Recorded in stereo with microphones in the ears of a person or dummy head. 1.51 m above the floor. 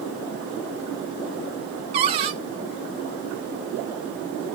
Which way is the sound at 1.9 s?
30° right (ahead or behind).